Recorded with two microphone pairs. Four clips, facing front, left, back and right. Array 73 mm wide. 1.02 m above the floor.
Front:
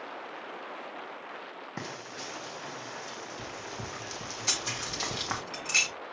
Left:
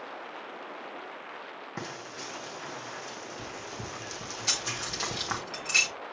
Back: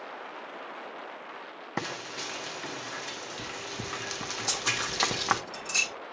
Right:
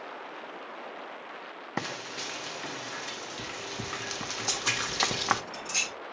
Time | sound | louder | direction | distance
1.8 | frying | right 5 dB, back 6 dB | 130° right | 1.0 m
4.5 | keys jangling | right 4 dB, back 5 dB | 30° left | 6 m